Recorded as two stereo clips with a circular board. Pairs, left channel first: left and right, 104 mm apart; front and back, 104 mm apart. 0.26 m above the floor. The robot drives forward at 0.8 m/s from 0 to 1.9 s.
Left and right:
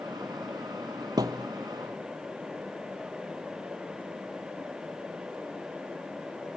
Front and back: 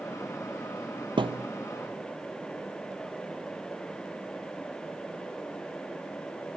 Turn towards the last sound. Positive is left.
turn(degrees=-155)